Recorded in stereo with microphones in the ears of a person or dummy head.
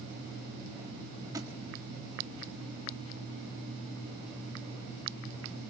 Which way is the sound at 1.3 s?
20° right (ahead or behind).